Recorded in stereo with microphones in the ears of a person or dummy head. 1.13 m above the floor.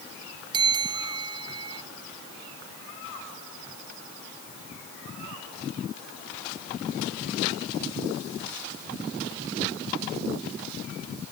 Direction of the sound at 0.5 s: 30° right (ahead or behind).